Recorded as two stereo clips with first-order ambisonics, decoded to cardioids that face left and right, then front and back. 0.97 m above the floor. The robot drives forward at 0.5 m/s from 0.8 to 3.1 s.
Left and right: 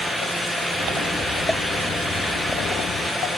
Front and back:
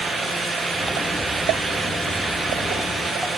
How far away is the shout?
I don't hear a shout.